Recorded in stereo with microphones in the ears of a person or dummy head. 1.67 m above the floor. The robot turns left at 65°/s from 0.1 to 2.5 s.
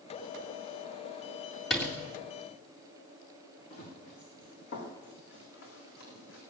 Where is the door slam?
5° left (ahead or behind), 2.5 m; by 2.0 s 20° left (ahead or behind), 2.5 m.